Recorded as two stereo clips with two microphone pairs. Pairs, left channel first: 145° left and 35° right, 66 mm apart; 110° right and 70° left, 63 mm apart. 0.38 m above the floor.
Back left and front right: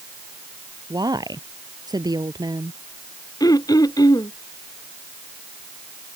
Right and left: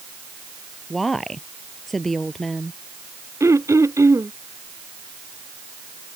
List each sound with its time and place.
0.9 s a woman speaking: 20° right
3.4 s throat clearing: 115° left